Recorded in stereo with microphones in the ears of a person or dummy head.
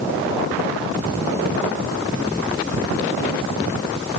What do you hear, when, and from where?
Only background noise.